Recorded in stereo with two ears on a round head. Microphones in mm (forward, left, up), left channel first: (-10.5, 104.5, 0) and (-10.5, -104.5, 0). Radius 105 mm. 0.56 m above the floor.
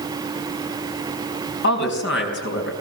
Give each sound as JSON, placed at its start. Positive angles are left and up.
{"t": 1.6, "sound": "a woman speaking", "side_deg": 55, "distance_m": 4.5}